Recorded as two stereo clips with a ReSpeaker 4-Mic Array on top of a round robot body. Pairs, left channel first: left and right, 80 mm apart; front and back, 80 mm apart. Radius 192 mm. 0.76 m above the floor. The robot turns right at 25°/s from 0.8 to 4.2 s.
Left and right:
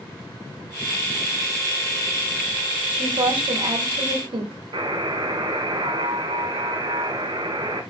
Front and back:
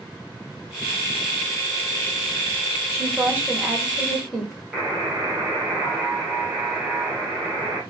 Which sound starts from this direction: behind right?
A woman speaking, at 2.9 s.